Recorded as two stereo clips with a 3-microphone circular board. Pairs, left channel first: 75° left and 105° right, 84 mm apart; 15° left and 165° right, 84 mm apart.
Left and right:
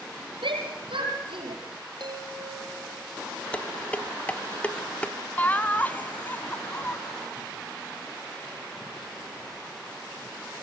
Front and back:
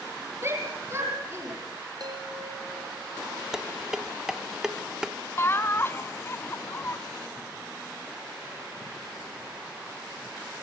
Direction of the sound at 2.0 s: 130° right.